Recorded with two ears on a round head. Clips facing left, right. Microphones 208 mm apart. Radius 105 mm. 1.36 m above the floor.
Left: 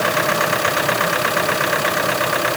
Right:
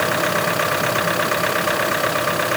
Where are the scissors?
I don't hear scissors.